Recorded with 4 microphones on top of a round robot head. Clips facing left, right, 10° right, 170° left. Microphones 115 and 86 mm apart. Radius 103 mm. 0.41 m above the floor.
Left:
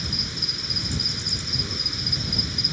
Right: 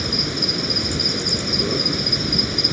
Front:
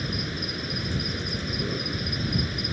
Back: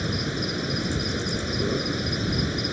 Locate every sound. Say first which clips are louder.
0.0 s an insect: right 10 dB, back 4 dB; 120° right